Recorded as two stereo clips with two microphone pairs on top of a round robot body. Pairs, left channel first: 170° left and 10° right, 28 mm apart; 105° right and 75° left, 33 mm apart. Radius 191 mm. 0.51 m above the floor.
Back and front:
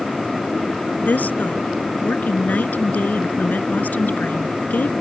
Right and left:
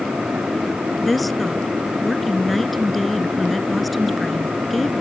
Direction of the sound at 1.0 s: 165° left.